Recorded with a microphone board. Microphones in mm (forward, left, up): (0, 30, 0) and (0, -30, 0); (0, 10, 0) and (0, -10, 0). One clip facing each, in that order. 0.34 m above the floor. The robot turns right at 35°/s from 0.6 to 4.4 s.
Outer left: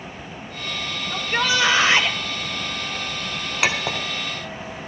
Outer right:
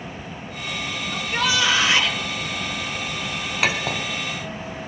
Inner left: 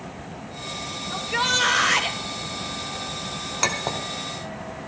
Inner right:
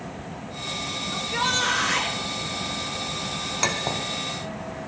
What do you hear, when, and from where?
1.1 s a shout: 85° left, 1.7 m; by 2.2 s 125° left, 1.7 m
3.6 s a clink: centre (ahead or behind), 1.2 m; by 4.0 s 15° left (ahead or behind), 1.2 m